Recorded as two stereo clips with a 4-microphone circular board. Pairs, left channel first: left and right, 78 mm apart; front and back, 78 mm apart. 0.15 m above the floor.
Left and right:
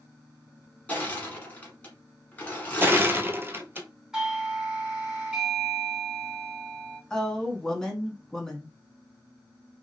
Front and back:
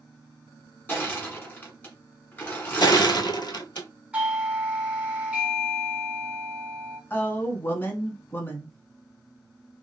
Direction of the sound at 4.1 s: 155° right.